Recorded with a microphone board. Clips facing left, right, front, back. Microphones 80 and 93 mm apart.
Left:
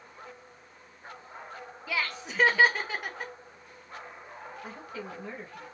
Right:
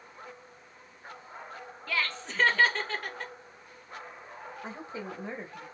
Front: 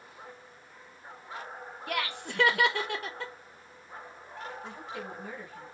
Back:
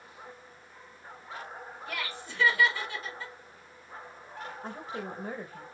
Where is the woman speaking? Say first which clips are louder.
Right 3 dB, back 2 dB; 150° right, 1.3 m.